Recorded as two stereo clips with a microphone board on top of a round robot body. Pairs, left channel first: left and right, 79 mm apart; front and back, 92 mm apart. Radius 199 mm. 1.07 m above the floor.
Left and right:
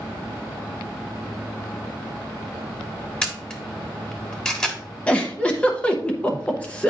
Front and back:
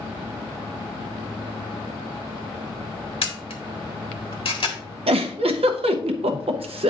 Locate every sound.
3.2 s a camera shutter: 10° left, 1.7 m
5.1 s a giggle: 165° left, 0.7 m